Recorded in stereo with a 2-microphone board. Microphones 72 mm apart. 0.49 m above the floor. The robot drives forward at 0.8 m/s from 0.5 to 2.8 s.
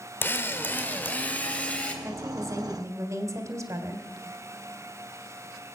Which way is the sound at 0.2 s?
30° left (ahead or behind).